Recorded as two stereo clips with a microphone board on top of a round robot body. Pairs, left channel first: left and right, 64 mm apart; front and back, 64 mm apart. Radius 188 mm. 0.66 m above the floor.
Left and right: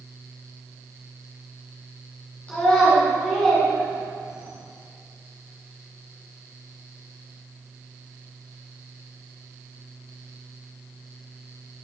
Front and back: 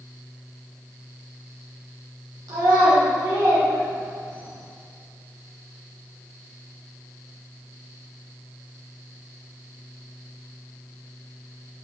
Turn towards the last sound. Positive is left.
turn(degrees=-170)